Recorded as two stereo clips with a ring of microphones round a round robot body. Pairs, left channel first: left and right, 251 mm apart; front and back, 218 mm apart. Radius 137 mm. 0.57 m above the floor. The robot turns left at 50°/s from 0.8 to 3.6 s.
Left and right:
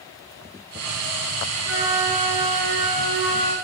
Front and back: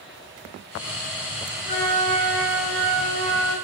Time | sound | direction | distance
1.6 | a flute | 50° right | 5 m